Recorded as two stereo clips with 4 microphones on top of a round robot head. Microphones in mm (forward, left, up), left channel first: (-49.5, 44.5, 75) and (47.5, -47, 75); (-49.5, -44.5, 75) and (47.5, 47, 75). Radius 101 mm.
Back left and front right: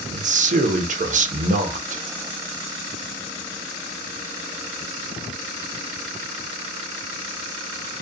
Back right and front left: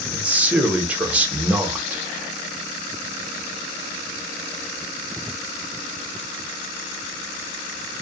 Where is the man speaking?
35° right, 0.7 m.